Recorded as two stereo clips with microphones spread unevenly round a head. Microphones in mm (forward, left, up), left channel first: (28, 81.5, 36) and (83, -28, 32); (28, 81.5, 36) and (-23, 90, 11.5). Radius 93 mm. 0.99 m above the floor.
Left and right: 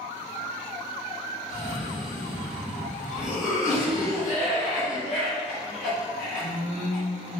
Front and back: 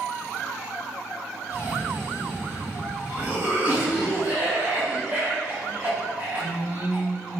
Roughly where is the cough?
Behind left.